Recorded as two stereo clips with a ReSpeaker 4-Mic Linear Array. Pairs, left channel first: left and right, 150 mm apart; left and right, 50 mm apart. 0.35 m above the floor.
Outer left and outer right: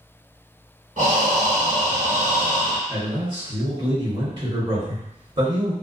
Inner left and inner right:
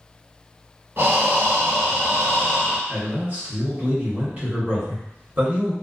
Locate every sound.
1.0 s breathing: 60° right (ahead or behind), 1.0 m
2.9 s a man speaking: 35° right (ahead or behind), 1.6 m